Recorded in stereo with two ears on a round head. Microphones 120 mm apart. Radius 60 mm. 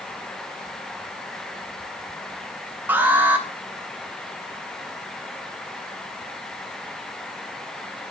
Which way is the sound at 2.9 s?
15° right (ahead or behind).